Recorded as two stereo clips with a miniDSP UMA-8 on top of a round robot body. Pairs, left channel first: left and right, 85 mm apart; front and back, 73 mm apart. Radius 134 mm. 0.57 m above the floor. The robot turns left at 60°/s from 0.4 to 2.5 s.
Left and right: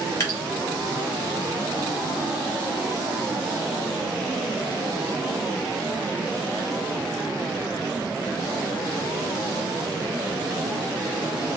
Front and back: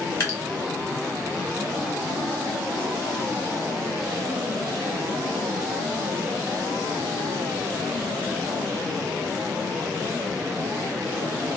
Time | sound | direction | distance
0.2 | dripping | 45° left | 2 m